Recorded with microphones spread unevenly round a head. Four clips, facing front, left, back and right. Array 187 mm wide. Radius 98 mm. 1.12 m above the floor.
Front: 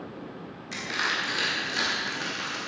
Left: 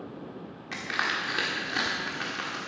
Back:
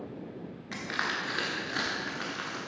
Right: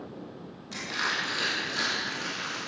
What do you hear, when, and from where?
0.7 s crushing: 105° left, 1.4 m